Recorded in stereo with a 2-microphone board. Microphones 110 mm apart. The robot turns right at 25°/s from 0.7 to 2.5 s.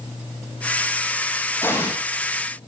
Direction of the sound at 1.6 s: 20° left (ahead or behind).